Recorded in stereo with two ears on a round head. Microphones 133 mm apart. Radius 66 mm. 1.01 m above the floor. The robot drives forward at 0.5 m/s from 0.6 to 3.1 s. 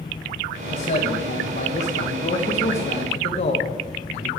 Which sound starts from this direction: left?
A man speaking, at 0.7 s.